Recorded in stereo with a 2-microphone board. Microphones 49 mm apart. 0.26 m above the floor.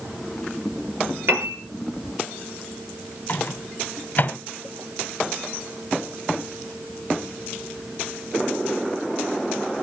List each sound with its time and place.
1.3 s a piano: 65° right (ahead or behind), 4 m
3.3 s a microwave: 40° left (ahead or behind), 1.6 m